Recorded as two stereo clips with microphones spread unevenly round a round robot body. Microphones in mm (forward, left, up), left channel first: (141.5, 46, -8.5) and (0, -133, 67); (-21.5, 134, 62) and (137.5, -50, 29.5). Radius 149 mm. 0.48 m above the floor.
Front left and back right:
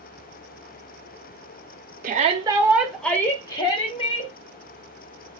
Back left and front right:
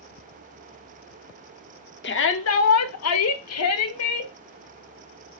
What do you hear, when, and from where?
2.0 s a shout: 165° left, 1.0 m; by 4.3 s 110° left, 2 m